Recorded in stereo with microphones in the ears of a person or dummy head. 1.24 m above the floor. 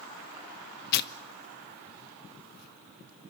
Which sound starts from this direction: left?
Tearing paper, at 0.9 s.